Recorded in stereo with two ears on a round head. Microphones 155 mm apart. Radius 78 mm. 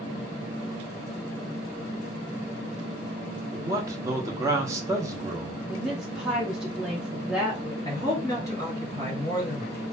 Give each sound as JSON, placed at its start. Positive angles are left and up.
{"t": 3.5, "sound": "a man speaking", "side_deg": -15, "distance_m": 0.6}
{"t": 5.7, "sound": "a woman speaking", "side_deg": 0, "distance_m": 0.7}
{"t": 7.8, "sound": "a man speaking", "side_deg": 20, "distance_m": 2.0}